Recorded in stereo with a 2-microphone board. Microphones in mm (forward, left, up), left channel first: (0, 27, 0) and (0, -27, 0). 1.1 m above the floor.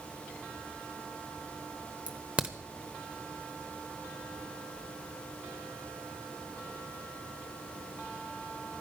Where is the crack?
25° right (ahead or behind), 1.0 m.